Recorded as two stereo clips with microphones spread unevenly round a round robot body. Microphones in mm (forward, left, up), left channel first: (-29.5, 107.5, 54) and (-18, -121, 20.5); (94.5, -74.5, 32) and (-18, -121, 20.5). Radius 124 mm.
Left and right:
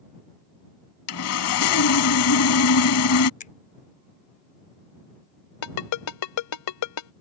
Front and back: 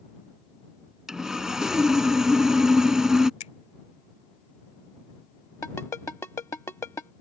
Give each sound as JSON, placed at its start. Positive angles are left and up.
{"t": 1.1, "sound": "sawing", "azimuth_deg": 115}
{"t": 3.4, "sound": "a finger snap", "azimuth_deg": 35}
{"t": 5.6, "sound": "a ringtone", "azimuth_deg": 100}